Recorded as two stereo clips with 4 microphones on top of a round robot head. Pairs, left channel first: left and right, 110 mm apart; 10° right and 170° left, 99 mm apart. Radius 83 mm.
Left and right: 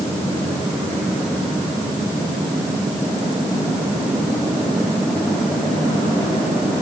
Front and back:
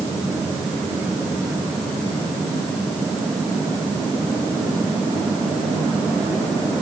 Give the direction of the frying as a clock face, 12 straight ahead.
I don't hear frying.